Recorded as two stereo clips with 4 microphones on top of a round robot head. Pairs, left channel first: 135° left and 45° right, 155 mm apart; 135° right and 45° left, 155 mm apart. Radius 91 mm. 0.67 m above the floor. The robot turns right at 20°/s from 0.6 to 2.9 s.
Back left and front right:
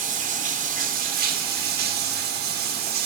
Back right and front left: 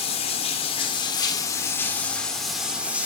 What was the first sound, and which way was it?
Running water, 80° right.